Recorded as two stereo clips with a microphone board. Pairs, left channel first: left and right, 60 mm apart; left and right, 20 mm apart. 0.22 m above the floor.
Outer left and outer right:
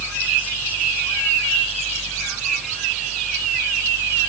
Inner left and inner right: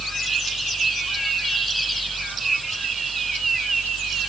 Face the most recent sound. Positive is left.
No sound to turn to.